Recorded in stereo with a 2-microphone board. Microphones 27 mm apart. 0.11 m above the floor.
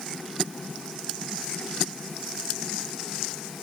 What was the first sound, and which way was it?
Only background noise.